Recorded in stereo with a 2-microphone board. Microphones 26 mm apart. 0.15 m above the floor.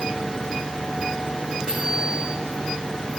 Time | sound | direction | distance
1.7 | a bicycle bell | 25° right (ahead or behind) | 8.5 m